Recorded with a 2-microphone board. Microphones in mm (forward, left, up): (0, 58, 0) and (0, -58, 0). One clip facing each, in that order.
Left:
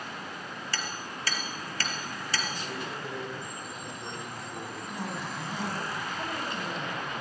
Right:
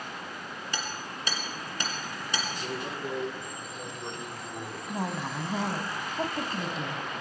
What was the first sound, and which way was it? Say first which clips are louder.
Hammering: right 1 dB; 20° right (ahead or behind).